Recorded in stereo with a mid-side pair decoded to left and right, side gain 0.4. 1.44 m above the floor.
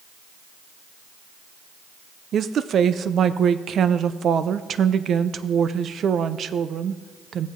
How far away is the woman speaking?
About 0.6 m.